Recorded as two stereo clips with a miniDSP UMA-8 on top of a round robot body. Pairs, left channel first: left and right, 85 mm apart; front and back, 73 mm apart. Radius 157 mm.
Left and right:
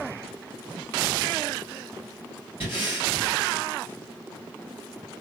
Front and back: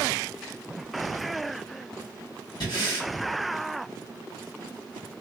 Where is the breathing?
20° right, 1.2 m.